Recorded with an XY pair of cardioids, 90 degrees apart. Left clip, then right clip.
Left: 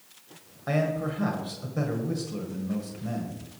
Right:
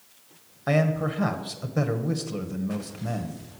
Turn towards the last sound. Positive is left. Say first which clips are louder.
# right 3 dB
turn(degrees=-50)